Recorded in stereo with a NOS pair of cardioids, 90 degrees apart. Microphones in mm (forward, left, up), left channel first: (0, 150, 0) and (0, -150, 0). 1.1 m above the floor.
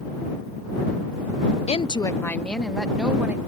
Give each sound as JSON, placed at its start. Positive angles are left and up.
{"t": 1.7, "sound": "a woman speaking", "azimuth_deg": 20}